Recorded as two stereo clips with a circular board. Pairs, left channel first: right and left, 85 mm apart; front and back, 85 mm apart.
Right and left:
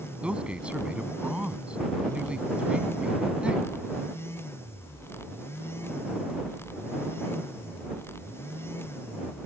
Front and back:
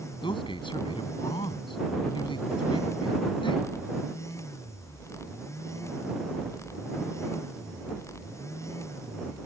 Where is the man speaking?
10° left.